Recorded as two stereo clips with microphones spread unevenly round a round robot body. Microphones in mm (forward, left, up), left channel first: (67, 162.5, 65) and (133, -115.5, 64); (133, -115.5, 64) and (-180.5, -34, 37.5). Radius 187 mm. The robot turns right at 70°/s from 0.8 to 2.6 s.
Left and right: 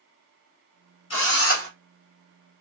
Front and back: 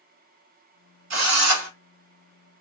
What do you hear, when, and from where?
1.1 s a drill: 130° left, 1.5 m; by 1.7 s 170° left, 1.5 m